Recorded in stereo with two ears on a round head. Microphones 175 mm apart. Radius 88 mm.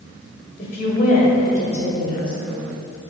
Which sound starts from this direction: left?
A woman speaking, at 0.6 s.